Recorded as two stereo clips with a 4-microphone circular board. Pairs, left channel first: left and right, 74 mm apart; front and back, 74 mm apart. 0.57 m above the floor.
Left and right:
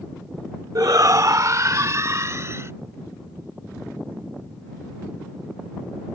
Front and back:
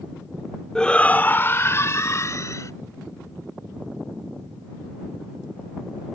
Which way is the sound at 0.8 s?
80° right.